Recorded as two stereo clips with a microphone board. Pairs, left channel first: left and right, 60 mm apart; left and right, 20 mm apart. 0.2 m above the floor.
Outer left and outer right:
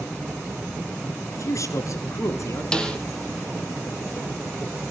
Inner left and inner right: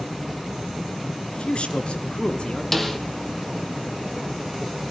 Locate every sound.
1.3 s a man speaking: 65° left (ahead or behind), 3 m; by 2.6 s 55° left (ahead or behind), 2.5 m
2.7 s a snare drum: 15° left (ahead or behind), 2 m